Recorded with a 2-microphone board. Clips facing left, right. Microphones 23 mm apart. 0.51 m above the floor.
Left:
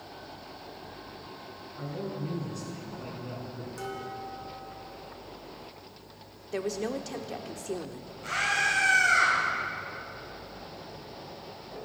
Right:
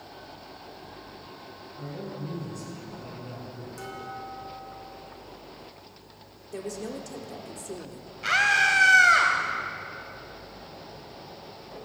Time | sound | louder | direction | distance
1.8 | a man speaking | left 2 dB | 25° left (ahead or behind) | 6 m
3.8 | dishes clattering | left 1 dB | 5° left (ahead or behind) | 3 m
6.5 | a woman speaking | left 4 dB | 40° left (ahead or behind) | 0.9 m
8.2 | a scream | right 6 dB | 70° right (ahead or behind) | 2 m